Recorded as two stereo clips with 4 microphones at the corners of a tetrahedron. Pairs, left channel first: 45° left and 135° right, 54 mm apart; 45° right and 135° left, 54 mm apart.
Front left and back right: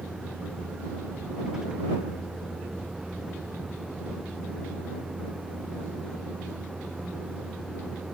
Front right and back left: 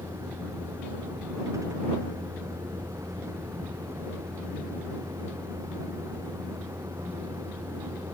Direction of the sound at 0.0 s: 145° left.